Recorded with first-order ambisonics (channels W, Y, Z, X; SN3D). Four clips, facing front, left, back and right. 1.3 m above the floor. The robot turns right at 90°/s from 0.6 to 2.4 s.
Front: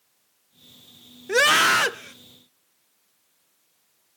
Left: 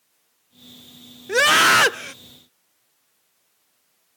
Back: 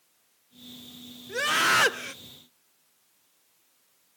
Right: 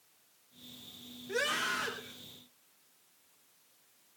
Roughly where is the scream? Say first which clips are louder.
Left 18 dB, front 6 dB; ahead left.